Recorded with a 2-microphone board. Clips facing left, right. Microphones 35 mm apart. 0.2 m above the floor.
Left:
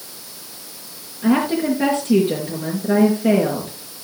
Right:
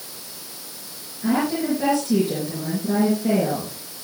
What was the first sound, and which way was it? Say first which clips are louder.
A woman speaking: left 4 dB; 40° left (ahead or behind).